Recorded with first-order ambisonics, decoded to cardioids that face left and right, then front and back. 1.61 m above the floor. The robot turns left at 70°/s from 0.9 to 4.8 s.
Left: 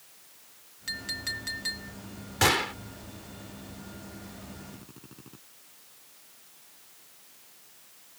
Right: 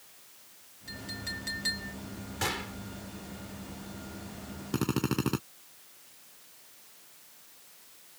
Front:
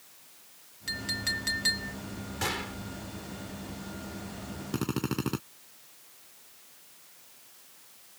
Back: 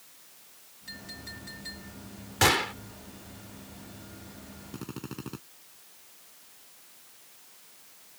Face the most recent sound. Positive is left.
turn(degrees=-60)